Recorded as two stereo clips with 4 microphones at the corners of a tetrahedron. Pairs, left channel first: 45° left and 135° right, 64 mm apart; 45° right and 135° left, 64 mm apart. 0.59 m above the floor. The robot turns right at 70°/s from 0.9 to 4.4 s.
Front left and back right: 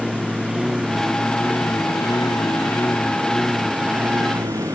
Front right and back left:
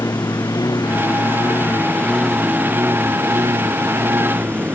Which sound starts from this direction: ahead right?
A lawn mower, at 0.0 s.